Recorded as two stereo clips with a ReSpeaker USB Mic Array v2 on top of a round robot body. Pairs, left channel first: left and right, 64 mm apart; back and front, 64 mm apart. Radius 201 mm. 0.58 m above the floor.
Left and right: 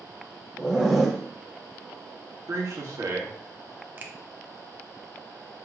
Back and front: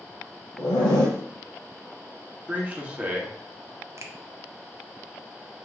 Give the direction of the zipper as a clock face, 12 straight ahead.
6 o'clock.